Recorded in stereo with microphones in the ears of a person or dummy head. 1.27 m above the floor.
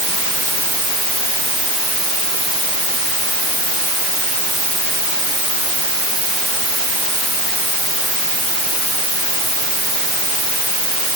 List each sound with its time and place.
Only background noise.